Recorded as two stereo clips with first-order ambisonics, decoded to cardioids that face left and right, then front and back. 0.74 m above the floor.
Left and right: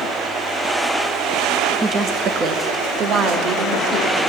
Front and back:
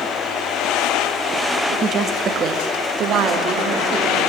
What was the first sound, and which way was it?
A woman speaking, 140° right.